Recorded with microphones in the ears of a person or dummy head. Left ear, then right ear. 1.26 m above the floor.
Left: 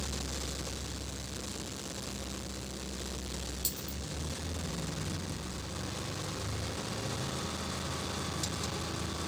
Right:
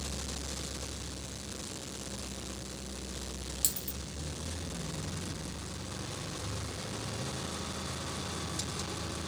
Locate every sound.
3.6 s a dropped coin: 35° right (ahead or behind), 0.7 m